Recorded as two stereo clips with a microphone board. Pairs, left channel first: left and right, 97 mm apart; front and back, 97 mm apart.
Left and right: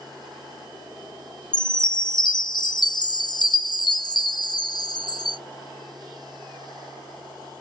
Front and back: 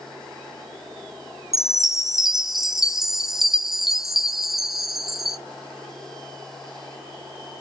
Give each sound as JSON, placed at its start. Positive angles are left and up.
{"t": 1.5, "sound": "a chime", "azimuth_deg": 95, "distance_m": 0.6}